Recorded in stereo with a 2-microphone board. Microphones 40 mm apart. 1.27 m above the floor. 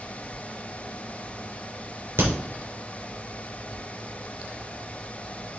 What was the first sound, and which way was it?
A crack, 70° right (ahead or behind).